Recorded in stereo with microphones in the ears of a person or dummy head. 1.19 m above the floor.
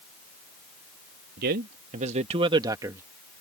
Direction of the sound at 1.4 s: 60° right (ahead or behind).